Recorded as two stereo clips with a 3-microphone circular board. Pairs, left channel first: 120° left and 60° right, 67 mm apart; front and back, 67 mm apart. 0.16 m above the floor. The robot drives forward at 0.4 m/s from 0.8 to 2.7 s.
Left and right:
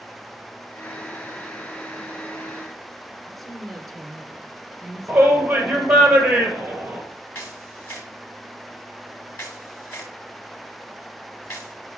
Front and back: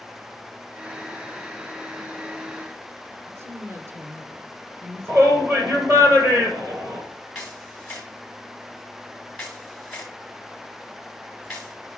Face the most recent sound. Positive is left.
turn(degrees=80)